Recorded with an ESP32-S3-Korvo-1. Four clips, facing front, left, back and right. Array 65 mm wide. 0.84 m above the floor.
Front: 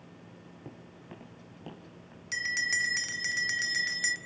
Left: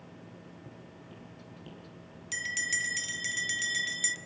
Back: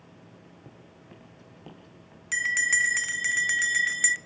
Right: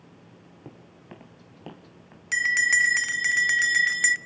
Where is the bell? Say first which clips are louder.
Right 12 dB, back 6 dB; 105° right, 0.7 m.